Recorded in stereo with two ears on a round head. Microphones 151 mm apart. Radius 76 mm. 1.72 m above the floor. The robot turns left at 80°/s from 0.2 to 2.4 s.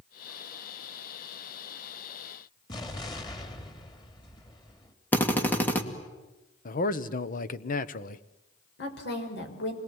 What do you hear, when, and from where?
2.7 s an explosion: 25° left (ahead or behind), 2.5 m
5.1 s a drill: 10° left (ahead or behind), 2 m
6.7 s a man speaking: 55° left (ahead or behind), 1.2 m
8.8 s a woman speaking: 75° left (ahead or behind), 6 m